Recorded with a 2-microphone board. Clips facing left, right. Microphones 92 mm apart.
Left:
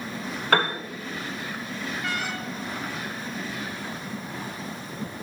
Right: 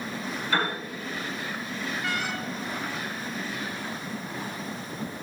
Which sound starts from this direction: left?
A piano, at 0.5 s.